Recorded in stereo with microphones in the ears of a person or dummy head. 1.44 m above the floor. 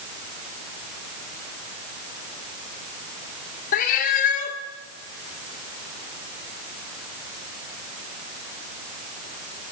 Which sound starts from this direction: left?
A cat meowing, at 3.7 s.